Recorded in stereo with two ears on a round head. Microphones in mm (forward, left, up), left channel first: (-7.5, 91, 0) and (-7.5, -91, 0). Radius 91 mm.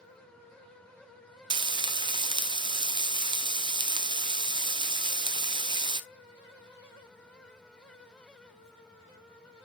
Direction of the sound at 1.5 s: 25° right (ahead or behind).